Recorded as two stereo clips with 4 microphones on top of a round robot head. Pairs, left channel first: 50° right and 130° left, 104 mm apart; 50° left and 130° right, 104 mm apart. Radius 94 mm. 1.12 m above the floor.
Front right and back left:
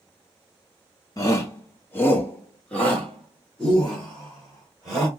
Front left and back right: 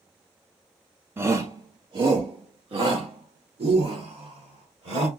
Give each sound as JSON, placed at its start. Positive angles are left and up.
{"t": 1.2, "sound": "a shout", "azimuth_deg": -75, "distance_m": 0.7}